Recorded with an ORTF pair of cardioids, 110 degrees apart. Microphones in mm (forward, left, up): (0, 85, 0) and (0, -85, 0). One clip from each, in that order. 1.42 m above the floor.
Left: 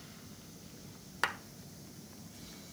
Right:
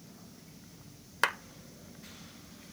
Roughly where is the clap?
Ahead.